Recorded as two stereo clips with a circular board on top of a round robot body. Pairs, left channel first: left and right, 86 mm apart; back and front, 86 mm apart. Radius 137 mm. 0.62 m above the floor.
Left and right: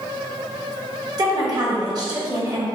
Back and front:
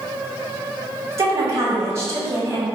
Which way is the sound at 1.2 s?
55° right.